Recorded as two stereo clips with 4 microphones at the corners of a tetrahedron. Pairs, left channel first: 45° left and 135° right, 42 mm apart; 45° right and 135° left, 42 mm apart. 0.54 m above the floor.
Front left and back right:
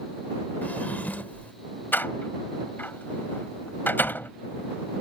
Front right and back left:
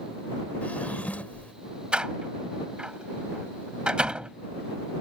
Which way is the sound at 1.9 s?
70° left.